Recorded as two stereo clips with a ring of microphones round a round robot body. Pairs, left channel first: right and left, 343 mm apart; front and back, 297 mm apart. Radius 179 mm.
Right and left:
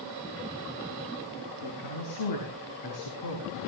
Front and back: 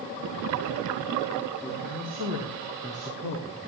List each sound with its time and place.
1.6 s a woman speaking: 105° right, 6 m; by 3.6 s 115° right, 5.5 m